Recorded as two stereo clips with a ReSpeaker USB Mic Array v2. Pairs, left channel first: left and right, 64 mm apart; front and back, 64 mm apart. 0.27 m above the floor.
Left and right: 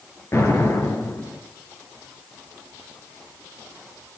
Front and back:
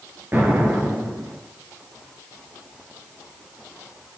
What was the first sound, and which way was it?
An explosion, 130° left.